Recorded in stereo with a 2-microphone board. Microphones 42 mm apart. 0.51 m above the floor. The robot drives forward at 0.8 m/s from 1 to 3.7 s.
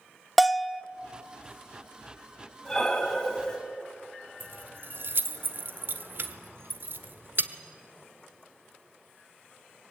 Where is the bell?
Centre (ahead or behind), 0.6 m.